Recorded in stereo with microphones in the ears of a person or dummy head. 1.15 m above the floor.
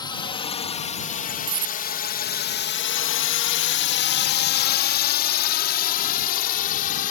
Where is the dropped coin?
20° right (ahead or behind).